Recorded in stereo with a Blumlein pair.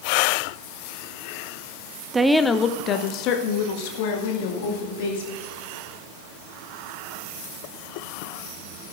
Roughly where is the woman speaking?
Ahead.